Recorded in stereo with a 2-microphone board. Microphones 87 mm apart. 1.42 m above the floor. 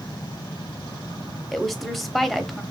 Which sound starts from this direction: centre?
A woman speaking, at 1.5 s.